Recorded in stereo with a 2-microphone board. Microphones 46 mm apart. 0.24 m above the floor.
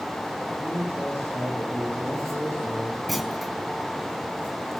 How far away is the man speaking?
About 9.5 m.